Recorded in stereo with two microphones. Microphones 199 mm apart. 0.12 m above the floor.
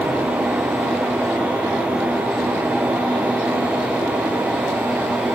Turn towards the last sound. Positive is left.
No sound to turn to.